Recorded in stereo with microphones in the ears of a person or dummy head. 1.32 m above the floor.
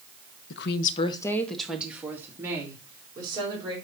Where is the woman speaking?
70° left (ahead or behind), 0.8 m; by 3.8 s 25° right (ahead or behind), 3.5 m.